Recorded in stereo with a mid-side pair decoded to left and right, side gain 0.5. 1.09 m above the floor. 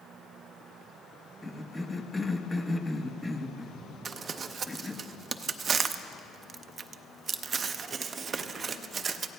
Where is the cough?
15° left, 1.1 m.